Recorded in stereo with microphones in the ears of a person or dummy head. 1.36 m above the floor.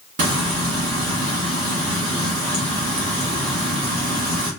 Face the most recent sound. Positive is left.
turn(degrees=-45)  # may be behind; listen again after turning